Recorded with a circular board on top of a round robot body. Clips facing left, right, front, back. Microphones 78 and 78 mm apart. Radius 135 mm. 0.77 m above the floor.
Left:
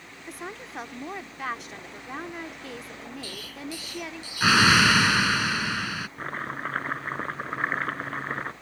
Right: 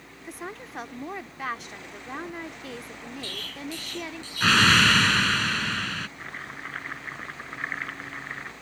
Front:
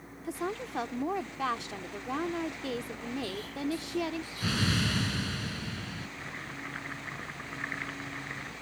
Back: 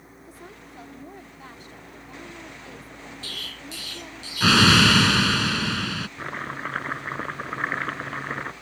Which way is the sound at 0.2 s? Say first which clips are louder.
Even, front 11 dB; straight ahead.